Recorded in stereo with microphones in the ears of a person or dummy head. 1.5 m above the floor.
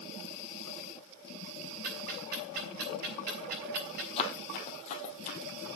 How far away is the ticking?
About 5.5 m.